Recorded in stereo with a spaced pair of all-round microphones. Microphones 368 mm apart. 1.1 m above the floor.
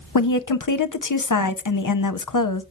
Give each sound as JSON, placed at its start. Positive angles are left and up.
{"t": 0.1, "sound": "a woman speaking", "side_deg": 55, "distance_m": 0.6}